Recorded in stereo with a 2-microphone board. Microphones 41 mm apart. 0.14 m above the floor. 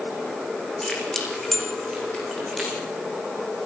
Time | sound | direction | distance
0.8 | keys jangling | 15° left (ahead or behind) | 5.5 m